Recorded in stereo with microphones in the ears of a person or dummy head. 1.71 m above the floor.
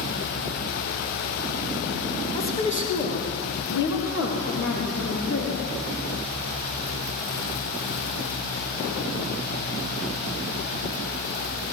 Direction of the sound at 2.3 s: 15° left (ahead or behind).